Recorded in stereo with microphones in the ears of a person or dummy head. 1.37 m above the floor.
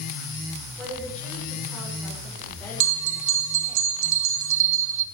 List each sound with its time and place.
0.8 s a woman speaking: 10° left (ahead or behind), 6 m
2.8 s a bell: 65° right (ahead or behind), 1.0 m